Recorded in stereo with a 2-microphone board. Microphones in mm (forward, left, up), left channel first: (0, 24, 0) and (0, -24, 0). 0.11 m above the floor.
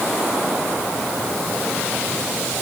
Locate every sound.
Only background noise.